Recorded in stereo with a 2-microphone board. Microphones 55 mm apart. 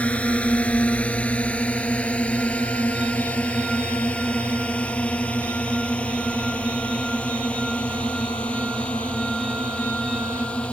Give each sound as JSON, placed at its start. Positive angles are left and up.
{"t": 0.0, "sound": "a drone", "side_deg": 25}